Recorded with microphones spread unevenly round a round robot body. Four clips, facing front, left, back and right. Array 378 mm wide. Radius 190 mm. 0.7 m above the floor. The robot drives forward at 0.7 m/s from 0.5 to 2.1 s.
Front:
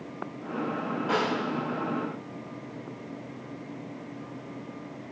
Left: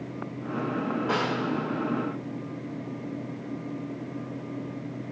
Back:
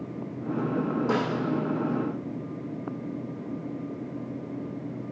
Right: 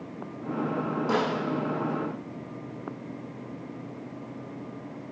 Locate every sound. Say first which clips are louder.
1.1 s a snare drum: right 3 dB, front 2 dB; straight behind, 3.5 m